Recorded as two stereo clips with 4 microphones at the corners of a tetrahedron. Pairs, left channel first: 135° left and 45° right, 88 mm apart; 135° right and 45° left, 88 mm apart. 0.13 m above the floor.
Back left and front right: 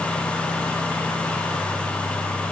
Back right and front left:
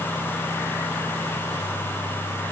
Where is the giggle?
I don't hear a giggle.